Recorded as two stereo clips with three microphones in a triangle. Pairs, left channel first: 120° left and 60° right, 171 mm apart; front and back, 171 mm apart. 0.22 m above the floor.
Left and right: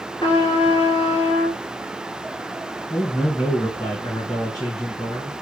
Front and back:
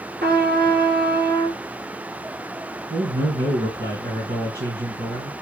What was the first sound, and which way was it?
A trumpet, 175° right.